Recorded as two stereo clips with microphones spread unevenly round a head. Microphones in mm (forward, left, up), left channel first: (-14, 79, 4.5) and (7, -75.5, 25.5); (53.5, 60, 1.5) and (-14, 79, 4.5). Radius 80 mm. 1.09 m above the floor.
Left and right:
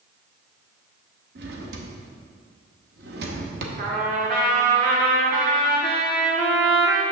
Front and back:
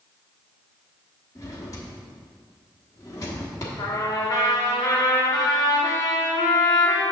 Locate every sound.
1.4 s a drawer: 80° right, 0.9 m
3.8 s a trumpet: 50° right, 1.2 m